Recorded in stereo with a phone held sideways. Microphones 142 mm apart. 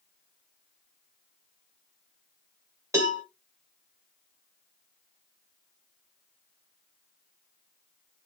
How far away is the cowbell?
About 1.0 m.